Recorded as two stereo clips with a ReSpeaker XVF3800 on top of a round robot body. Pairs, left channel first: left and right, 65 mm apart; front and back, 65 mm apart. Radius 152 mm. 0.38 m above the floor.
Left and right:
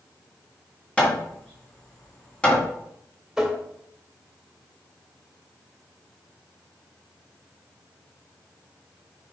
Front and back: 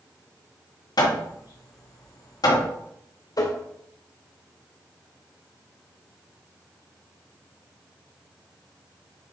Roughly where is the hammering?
Ahead.